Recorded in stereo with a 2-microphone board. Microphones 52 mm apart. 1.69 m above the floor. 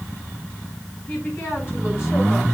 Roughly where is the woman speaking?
Left.